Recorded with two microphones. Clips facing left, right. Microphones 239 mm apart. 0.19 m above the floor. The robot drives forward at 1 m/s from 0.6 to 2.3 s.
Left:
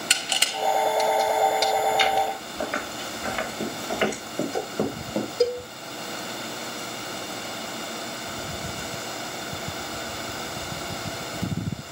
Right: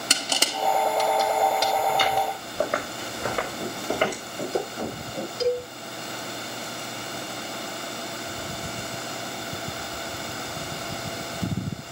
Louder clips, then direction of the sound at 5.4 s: Left 1 dB; 55° left (ahead or behind).